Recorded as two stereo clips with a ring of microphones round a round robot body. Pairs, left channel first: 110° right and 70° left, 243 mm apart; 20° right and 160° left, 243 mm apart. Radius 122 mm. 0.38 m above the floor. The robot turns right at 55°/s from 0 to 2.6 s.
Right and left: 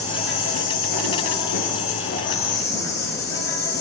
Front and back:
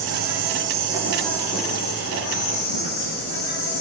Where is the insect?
Straight behind, 8.5 m; by 3.8 s 35° right, 8.5 m.